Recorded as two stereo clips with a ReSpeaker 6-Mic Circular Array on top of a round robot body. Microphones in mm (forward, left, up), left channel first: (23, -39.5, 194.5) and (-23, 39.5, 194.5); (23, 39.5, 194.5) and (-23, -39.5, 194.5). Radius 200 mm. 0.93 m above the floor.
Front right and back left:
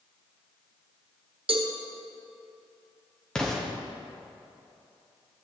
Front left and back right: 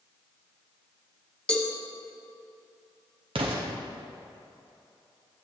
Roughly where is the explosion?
Behind right.